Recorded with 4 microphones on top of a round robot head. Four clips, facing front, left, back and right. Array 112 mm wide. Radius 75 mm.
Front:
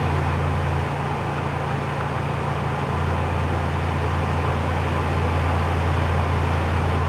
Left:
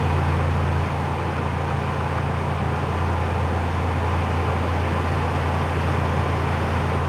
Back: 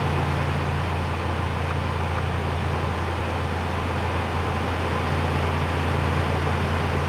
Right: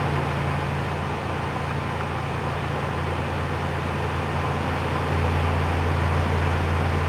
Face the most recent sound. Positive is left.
No sound to turn to.